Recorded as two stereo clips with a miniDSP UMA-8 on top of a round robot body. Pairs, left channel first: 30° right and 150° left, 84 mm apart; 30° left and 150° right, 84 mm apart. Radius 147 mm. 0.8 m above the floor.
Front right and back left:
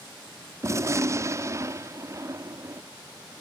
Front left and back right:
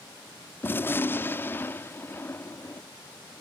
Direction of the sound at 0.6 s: 95° left.